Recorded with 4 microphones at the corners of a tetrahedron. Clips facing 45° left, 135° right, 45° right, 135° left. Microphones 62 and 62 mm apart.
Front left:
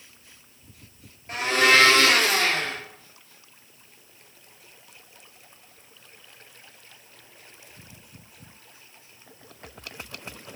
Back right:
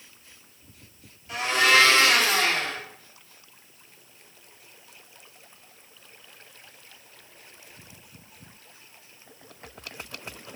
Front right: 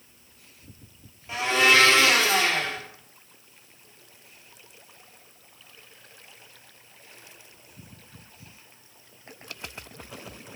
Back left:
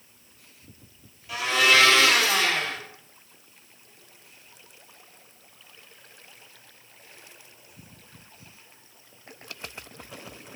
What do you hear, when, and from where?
1.3 s a blender: 10° left, 1.4 m